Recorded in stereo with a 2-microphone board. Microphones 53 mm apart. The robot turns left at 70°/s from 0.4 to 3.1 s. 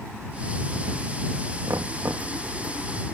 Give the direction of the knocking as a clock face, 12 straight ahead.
2 o'clock.